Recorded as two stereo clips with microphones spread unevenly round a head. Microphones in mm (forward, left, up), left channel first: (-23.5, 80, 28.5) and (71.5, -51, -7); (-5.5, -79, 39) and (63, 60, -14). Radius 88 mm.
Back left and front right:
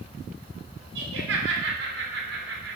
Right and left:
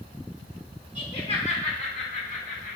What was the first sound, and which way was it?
Laughter, 65° right.